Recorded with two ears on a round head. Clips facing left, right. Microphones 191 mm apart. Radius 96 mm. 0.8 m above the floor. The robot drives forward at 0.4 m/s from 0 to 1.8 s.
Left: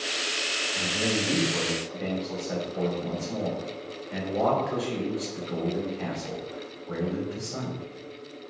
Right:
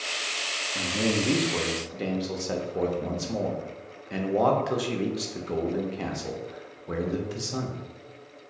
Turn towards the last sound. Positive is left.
turn(degrees=-55)  # may be behind; listen again after turning